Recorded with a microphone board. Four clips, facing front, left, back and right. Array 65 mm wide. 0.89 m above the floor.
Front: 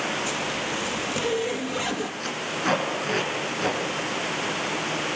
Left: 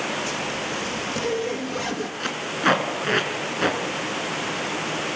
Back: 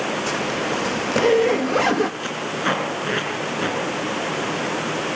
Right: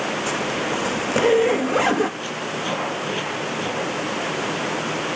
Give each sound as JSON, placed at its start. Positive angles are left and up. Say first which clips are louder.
{"t": 0.3, "sound": "a zipper", "louder": "right 5 dB, back 5 dB", "azimuth_deg": -135, "distance_m": 0.7}
{"t": 2.2, "sound": "tape being pulled", "louder": "left 3 dB, back 4 dB", "azimuth_deg": 110, "distance_m": 6.0}